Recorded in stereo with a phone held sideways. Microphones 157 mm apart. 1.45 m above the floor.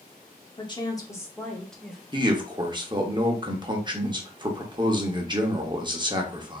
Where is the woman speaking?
35° left (ahead or behind), 1.2 m; by 2.0 s 5° right (ahead or behind), 1.3 m.